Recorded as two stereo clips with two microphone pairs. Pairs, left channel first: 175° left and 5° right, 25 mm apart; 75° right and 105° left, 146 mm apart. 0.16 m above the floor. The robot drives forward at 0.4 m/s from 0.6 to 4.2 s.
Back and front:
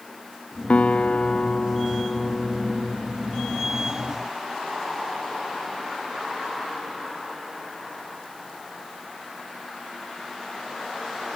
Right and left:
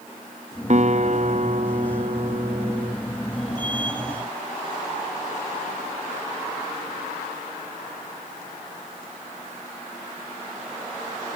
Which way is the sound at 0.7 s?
145° left.